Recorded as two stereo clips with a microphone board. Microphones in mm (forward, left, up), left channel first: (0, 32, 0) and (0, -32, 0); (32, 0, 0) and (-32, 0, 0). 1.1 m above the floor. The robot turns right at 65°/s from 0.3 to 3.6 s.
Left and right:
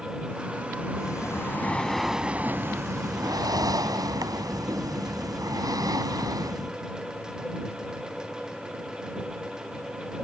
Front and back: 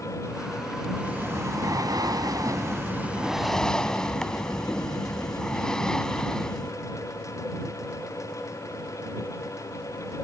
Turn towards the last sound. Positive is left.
turn(degrees=-80)